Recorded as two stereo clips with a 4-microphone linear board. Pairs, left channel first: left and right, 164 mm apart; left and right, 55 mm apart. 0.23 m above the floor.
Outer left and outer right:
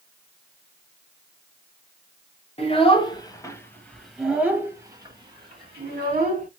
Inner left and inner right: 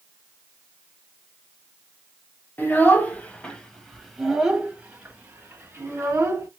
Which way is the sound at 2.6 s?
35° left (ahead or behind).